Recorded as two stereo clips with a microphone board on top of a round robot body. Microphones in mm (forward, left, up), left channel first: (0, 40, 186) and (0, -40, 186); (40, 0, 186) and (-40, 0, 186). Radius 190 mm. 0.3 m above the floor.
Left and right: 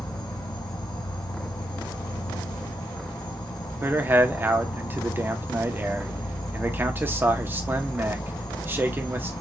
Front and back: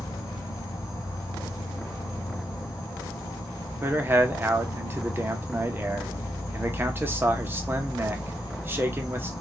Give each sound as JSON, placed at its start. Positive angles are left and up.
{"t": 0.0, "sound": "an insect", "azimuth_deg": 55, "distance_m": 0.8}
{"t": 3.8, "sound": "a man speaking", "azimuth_deg": -135, "distance_m": 1.0}